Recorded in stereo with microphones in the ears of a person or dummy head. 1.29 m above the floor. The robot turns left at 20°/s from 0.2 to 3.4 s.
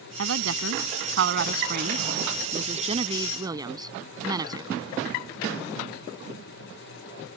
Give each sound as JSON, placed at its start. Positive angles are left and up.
{"t": 0.2, "sound": "a woman speaking", "azimuth_deg": -100}